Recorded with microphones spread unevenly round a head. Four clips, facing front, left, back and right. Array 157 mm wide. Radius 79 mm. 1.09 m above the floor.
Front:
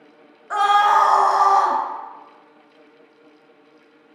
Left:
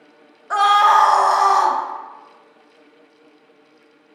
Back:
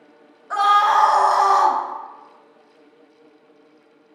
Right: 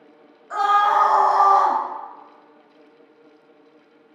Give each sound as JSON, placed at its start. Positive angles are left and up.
{"t": 0.5, "sound": "a scream", "azimuth_deg": 75, "distance_m": 0.8}